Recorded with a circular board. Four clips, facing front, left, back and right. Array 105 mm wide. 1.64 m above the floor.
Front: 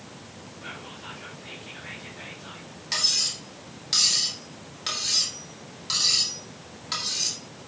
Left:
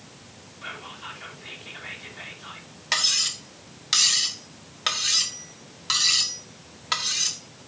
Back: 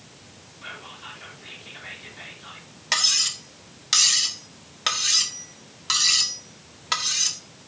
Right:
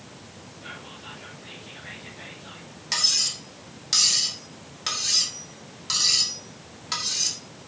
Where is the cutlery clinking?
140° left, 1.4 m.